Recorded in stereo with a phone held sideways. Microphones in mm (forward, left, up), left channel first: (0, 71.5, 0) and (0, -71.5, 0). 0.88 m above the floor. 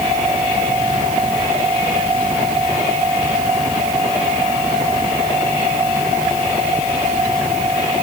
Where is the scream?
No scream in this recording.